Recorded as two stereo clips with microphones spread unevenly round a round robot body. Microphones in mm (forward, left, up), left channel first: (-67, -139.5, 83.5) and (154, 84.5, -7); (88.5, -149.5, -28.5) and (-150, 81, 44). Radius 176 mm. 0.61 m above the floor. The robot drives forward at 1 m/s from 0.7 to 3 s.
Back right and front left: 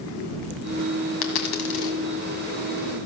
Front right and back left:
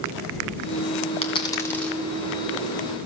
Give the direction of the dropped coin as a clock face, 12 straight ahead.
4 o'clock.